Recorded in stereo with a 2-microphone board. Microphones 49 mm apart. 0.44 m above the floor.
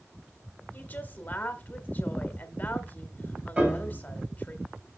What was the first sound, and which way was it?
A woman speaking, 35° left (ahead or behind).